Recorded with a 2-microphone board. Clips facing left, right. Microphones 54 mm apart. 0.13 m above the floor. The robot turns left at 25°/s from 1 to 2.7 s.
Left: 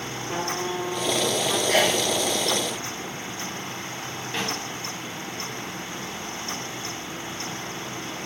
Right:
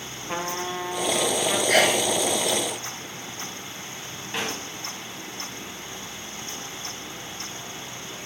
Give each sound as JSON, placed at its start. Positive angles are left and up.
{"t": 0.3, "sound": "a trumpet", "side_deg": -65, "distance_m": 4.0}
{"t": 1.7, "sound": "a sneeze", "side_deg": -70, "distance_m": 8.5}
{"t": 4.3, "sound": "a snare drum", "side_deg": -15, "distance_m": 9.0}